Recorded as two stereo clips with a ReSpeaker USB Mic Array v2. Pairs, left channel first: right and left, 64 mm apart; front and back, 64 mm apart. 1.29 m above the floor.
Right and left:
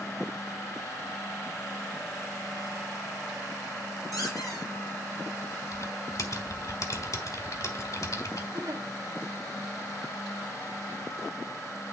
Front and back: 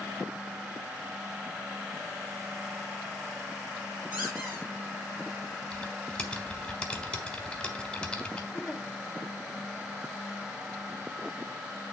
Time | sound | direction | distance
4.1 | a squeak | 120° right | 6 m
5.7 | typing on a keyboard | 75° right | 1.5 m
8.5 | a giggle | 95° left | 1.7 m